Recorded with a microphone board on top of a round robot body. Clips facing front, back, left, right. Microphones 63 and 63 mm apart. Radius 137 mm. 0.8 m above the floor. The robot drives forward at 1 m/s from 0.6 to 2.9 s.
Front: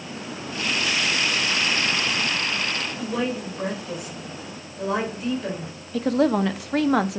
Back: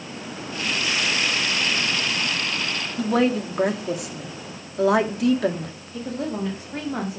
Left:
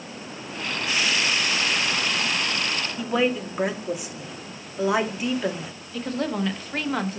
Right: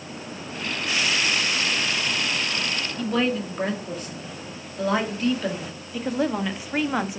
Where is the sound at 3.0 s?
170° left, 2.0 m.